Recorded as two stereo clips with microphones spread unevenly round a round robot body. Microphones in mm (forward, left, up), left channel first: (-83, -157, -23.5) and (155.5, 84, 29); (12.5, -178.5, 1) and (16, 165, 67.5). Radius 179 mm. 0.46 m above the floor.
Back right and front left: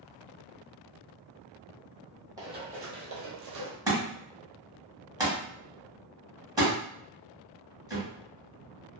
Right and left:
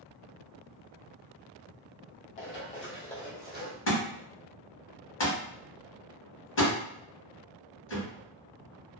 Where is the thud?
35° right, 1.4 m.